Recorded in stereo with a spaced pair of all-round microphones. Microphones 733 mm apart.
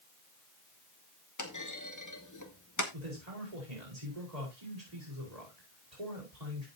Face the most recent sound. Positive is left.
turn(degrees=-60)  # may be behind; listen again after turning